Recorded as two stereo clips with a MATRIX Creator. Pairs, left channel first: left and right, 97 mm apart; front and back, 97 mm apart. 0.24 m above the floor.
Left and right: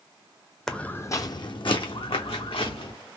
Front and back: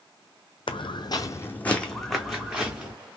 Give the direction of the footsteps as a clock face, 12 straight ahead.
12 o'clock.